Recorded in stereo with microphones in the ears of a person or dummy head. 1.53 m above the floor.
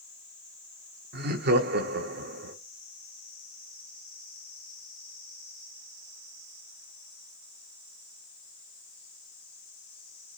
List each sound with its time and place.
1.1 s laughter: 60° right (ahead or behind), 1.7 m